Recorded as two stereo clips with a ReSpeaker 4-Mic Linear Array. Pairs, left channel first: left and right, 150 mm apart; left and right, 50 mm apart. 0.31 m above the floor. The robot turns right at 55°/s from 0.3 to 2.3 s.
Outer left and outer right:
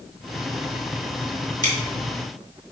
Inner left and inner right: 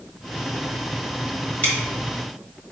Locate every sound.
1.6 s scissors: 30° left (ahead or behind), 1.5 m; by 1.7 s 25° left (ahead or behind), 1.5 m